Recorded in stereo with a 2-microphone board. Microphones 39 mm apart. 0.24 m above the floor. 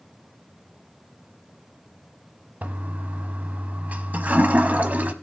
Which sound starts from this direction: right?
A toilet flushing, at 2.6 s.